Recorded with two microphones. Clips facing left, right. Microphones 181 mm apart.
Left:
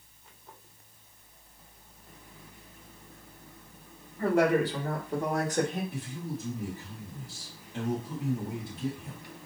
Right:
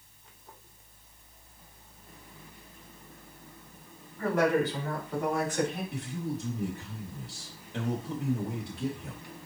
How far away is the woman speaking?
About 2.5 m.